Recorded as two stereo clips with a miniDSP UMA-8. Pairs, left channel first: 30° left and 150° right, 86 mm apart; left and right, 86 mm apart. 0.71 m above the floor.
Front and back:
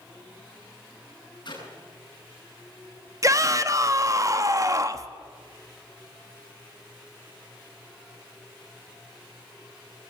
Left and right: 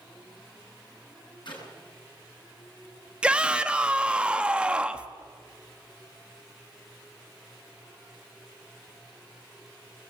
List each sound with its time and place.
1.4 s a clap: 65° left, 8 m
3.2 s a shout: 160° right, 1.3 m